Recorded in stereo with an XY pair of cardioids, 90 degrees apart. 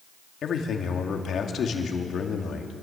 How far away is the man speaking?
About 2.5 m.